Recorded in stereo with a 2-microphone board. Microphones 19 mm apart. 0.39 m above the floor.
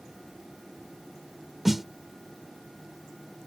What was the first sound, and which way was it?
A snare drum, 20° right (ahead or behind).